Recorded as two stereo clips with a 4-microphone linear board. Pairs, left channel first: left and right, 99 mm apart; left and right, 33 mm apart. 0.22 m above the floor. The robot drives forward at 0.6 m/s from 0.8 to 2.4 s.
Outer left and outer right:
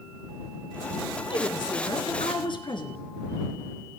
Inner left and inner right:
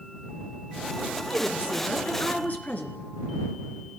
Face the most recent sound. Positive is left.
turn(degrees=55)  # may be behind; listen again after turning